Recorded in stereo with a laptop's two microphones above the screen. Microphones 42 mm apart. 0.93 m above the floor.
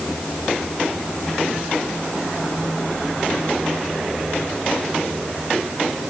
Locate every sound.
Only background noise.